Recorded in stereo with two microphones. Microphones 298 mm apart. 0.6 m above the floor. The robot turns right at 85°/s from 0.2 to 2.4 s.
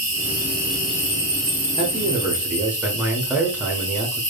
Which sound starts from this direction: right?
A man speaking, at 1.8 s.